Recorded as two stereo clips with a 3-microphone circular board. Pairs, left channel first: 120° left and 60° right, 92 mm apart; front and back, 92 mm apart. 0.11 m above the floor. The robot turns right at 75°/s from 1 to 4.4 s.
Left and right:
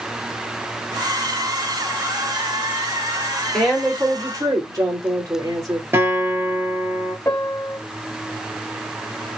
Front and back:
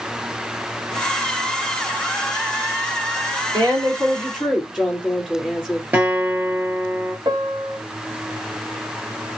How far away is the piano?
About 1.7 m.